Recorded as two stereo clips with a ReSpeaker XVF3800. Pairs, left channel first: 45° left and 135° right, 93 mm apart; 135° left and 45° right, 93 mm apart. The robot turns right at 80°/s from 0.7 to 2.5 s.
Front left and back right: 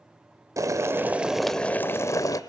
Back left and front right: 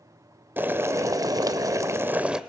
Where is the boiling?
100° right, 0.7 m; by 2.4 s 35° left, 0.7 m.